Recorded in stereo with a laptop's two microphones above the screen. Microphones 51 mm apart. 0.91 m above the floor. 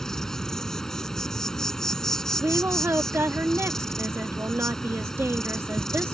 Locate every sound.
0.0 s an insect: 10° left (ahead or behind)
2.4 s a woman speaking: 55° right (ahead or behind)